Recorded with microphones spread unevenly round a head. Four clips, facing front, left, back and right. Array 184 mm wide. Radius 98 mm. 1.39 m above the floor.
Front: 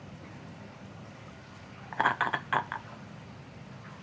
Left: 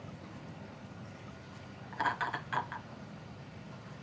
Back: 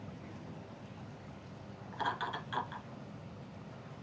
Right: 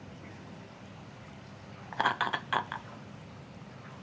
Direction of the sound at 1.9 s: 35° right.